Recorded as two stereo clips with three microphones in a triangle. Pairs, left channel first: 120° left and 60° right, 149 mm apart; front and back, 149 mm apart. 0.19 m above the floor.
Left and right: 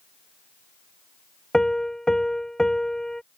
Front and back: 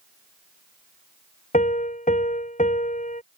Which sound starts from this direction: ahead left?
A piano, at 1.5 s.